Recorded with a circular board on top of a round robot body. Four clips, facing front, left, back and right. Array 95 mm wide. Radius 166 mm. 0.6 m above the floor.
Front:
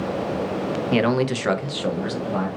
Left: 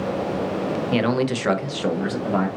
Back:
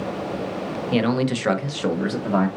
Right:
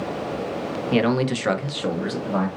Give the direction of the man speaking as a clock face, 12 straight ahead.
12 o'clock.